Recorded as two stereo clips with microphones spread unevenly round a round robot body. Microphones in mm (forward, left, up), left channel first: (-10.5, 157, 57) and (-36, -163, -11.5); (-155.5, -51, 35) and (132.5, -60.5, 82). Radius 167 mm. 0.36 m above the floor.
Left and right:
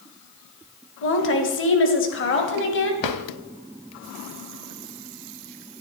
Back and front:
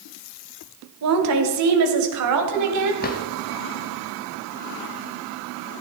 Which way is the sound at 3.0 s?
120° left.